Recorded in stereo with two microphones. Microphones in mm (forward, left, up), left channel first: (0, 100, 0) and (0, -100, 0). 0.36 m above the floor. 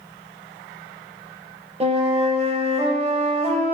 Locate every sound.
1.8 s a flute: 30° right (ahead or behind), 0.5 m